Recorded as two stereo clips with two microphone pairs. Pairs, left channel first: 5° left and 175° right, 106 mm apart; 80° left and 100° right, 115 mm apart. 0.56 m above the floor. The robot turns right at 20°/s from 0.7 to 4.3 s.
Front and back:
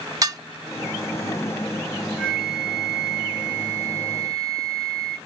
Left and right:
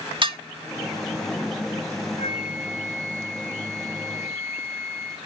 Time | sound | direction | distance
0.2 | dishes clattering | 130° right | 0.9 m
2.2 | a flute | 95° left | 2 m